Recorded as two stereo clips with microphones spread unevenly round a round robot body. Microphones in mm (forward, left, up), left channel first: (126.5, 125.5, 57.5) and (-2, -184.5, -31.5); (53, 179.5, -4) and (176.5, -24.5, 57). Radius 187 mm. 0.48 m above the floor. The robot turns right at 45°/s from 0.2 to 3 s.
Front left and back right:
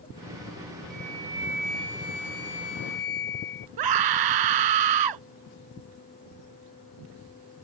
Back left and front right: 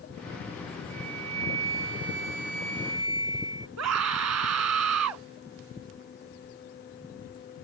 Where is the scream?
105° right.